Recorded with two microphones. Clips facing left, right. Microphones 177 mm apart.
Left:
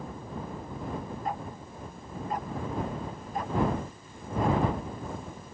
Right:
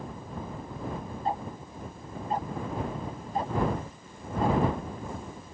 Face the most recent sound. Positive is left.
turn(degrees=-25)  # may be behind; listen again after turning